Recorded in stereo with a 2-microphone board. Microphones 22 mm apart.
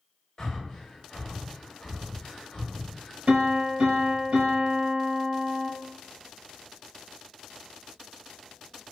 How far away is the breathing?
About 0.8 m.